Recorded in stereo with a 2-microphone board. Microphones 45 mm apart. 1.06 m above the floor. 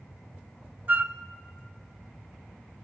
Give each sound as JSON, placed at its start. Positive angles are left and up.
{"t": 0.9, "sound": "a flute", "side_deg": -40, "distance_m": 0.8}